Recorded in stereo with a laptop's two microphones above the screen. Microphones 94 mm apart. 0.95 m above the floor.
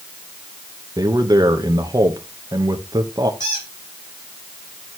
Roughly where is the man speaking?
Right.